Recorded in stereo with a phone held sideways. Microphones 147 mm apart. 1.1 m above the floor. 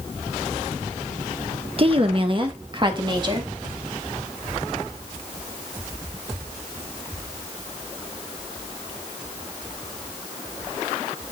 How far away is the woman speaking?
About 1.2 m.